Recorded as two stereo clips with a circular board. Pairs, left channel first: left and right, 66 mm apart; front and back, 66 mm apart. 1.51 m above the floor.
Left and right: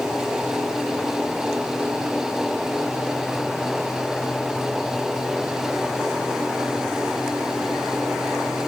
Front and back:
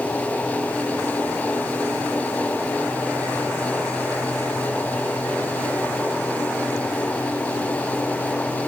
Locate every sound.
Only background noise.